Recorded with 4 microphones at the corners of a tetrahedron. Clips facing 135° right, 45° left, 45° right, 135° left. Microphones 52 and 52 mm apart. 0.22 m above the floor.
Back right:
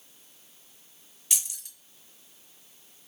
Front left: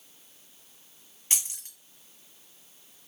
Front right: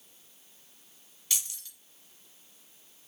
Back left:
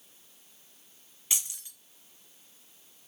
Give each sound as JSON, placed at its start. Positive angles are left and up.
{"t": 1.3, "sound": "keys jangling", "azimuth_deg": 80, "distance_m": 1.4}